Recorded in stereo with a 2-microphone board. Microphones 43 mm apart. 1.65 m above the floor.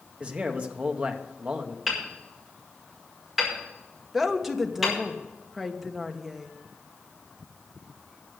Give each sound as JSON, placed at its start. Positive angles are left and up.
{"t": 0.2, "sound": "a man speaking", "side_deg": -30, "distance_m": 1.3}
{"t": 1.9, "sound": "hammering", "side_deg": -5, "distance_m": 5.5}
{"t": 4.1, "sound": "a woman speaking", "side_deg": -5, "distance_m": 1.3}